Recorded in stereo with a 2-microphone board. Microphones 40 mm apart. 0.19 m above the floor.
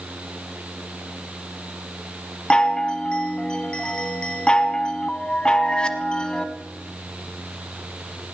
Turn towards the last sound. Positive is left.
turn(degrees=25)  # may be behind; listen again after turning